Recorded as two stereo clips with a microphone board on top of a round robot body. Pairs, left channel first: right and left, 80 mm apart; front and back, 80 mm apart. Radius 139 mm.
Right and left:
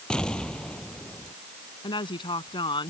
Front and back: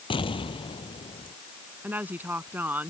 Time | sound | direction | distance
0.1 | an explosion | 10° right | ?
1.8 | a woman speaking | 110° right | ?